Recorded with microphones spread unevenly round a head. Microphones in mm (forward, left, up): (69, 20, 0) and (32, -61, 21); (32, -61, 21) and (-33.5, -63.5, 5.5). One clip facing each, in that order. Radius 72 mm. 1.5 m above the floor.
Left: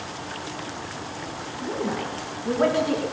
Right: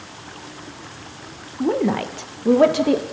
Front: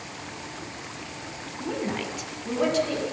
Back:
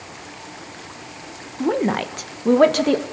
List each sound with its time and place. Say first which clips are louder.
1.6 s a woman speaking: right 8 dB, back 10 dB; 140° right, 1.5 m; by 3.0 s 160° right, 2 m